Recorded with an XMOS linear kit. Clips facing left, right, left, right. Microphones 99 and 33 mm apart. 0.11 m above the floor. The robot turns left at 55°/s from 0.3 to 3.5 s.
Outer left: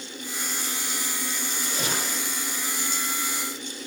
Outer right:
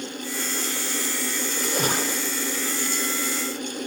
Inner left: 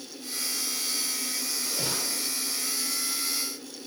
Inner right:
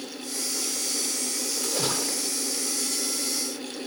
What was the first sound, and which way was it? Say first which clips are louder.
A splash: outer right 6 dB, inner right 5 dB; 115° right.